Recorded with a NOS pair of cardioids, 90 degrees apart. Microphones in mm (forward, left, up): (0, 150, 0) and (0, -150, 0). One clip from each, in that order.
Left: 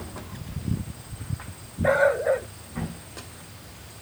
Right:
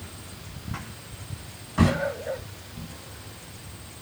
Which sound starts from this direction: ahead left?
A dog barking, at 1.8 s.